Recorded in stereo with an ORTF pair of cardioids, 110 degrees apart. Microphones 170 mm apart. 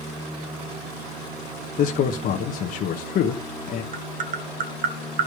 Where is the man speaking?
60° left, 1.1 m.